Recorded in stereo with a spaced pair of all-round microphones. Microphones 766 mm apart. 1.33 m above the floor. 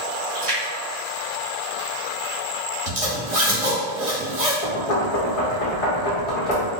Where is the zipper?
45° right (ahead or behind), 1.1 m.